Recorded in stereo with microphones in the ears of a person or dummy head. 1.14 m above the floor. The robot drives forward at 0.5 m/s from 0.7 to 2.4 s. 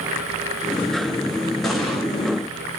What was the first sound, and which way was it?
An explosion, centre (ahead or behind).